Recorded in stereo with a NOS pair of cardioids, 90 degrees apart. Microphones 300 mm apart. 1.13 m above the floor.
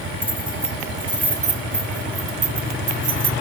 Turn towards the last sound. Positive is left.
turn(degrees=-30)